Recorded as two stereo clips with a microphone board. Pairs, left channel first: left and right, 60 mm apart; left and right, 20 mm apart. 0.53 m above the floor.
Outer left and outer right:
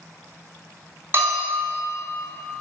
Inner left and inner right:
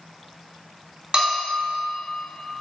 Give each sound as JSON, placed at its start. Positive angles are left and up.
{"t": 1.1, "sound": "a bell", "side_deg": -40, "distance_m": 3.0}